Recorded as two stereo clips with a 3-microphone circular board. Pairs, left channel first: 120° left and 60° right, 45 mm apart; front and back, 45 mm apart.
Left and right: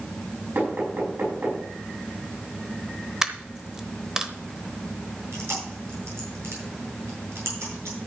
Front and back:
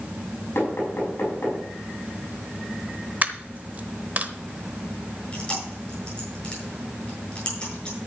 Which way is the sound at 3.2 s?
135° right.